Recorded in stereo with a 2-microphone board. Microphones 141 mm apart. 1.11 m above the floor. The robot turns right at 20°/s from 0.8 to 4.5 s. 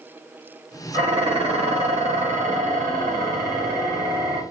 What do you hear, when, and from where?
0.9 s dishes clattering: 145° right, 1.1 m; by 4.4 s 75° right, 1.1 m